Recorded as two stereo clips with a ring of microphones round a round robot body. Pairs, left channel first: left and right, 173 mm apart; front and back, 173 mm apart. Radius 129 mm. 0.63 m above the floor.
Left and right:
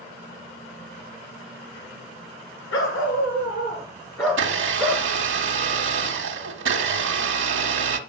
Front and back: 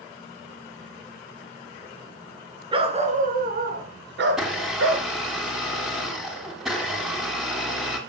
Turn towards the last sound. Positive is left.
turn(degrees=-90)